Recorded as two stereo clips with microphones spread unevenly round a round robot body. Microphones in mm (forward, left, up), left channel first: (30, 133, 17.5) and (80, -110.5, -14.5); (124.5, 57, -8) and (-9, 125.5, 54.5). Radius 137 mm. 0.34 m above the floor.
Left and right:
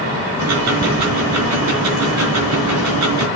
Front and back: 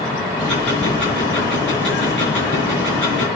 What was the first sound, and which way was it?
Ticking, 105° right.